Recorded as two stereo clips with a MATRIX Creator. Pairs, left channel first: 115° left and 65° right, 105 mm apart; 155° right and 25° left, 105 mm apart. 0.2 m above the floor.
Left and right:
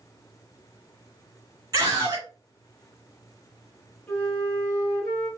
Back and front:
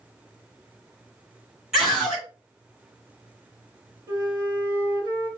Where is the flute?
50° left, 1.7 m.